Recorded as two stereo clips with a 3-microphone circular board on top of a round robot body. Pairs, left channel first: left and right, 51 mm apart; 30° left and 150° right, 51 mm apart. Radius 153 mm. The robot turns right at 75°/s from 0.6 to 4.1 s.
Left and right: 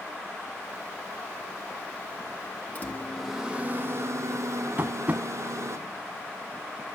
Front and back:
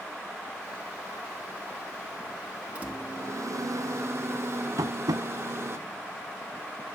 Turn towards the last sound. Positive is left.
turn(degrees=-150)